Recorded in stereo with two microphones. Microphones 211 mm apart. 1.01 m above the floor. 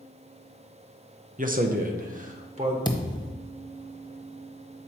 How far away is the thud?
About 0.8 m.